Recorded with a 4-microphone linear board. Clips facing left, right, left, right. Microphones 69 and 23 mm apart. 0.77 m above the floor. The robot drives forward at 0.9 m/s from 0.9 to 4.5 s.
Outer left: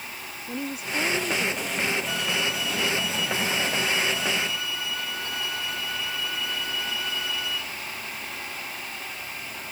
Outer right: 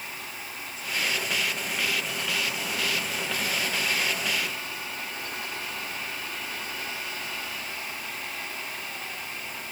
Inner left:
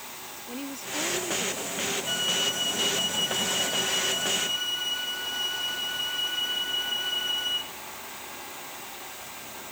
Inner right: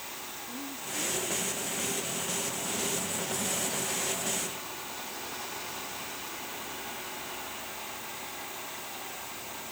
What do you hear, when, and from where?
0.5 s a woman speaking: 75° left (ahead or behind)
2.1 s a flute: 75° left (ahead or behind); by 7.7 s 90° left